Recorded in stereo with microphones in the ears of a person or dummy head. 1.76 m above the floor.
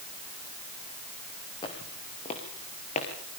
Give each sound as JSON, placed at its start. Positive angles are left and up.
{"t": 1.6, "sound": "footsteps", "side_deg": 25, "distance_m": 5.5}